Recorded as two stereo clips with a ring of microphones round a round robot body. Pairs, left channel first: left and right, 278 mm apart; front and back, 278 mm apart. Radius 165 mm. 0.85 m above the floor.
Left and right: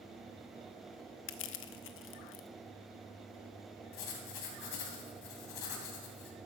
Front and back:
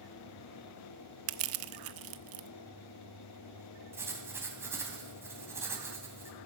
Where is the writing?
100° left, 2.5 m.